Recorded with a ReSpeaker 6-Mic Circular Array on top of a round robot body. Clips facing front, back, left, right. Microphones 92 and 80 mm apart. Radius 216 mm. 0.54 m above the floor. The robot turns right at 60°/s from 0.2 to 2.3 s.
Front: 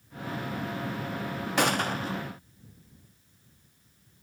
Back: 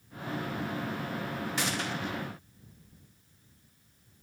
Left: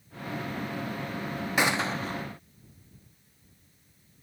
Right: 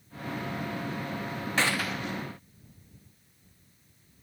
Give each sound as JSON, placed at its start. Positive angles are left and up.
{"t": 1.6, "sound": "a gunshot", "azimuth_deg": 15}